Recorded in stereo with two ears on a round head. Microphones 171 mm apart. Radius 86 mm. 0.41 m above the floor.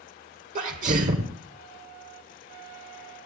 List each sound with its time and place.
0.6 s a sneeze: 45° right (ahead or behind), 1.2 m